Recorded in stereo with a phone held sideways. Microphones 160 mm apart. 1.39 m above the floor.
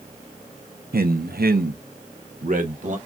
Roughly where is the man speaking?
Right.